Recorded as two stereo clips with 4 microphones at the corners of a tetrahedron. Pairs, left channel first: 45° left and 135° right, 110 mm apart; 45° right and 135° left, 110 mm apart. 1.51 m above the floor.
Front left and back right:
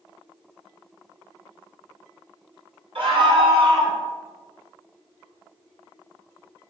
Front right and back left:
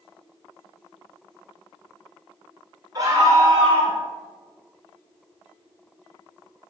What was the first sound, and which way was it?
A scream, 165° right.